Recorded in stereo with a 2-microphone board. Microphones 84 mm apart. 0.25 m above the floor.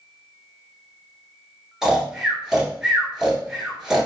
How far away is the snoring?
About 1.3 m.